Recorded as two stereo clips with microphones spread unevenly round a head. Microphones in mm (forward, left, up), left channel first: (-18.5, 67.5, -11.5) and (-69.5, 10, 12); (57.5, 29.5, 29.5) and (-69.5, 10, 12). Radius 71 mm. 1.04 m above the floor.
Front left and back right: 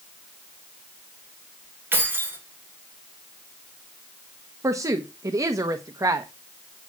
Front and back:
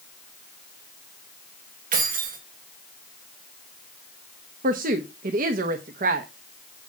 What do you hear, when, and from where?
1.9 s keys jangling: 165° left, 2.5 m
4.6 s a woman speaking: 175° left, 1.0 m